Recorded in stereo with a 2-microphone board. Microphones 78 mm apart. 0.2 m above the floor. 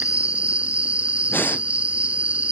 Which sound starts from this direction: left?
Breathing, at 1.3 s.